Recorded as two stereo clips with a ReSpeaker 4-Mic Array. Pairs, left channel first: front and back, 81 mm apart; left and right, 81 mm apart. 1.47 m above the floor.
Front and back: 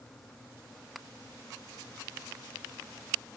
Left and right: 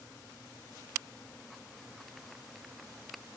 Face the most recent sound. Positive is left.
No sound to turn to.